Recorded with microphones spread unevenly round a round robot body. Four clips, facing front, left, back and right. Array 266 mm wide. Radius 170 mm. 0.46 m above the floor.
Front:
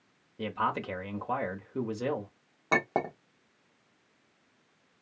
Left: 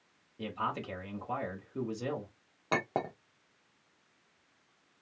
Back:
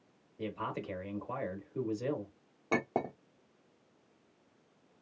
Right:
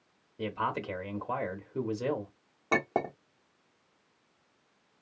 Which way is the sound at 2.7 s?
135° right.